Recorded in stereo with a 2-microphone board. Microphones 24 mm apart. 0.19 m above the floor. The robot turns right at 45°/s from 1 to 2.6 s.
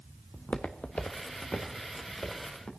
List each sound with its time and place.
0.3 s footsteps: 80° left, 0.8 m; by 2.7 s 40° left (ahead or behind), 3.5 m